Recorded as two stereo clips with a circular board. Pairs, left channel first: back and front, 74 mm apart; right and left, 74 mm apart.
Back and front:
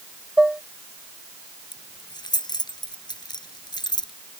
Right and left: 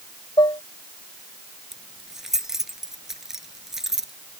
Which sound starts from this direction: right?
Dishes clattering, at 0.4 s.